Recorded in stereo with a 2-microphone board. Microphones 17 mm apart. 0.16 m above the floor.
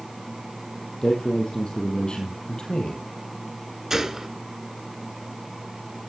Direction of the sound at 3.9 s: 30° right (ahead or behind).